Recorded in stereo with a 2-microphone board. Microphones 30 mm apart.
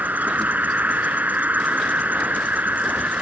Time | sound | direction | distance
0.0 | an insect | 75° right (ahead or behind) | ?